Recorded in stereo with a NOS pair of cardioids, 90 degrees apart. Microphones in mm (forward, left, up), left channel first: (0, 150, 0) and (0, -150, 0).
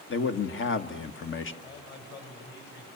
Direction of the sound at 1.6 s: 40° left.